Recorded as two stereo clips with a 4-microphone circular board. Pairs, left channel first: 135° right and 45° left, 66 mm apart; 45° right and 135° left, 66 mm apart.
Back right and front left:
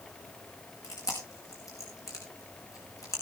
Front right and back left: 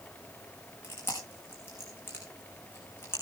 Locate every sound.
0.8 s chewing: 100° right, 4.5 m